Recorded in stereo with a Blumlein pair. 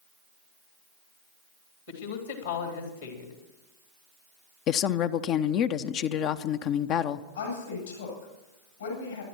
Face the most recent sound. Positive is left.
turn(degrees=70)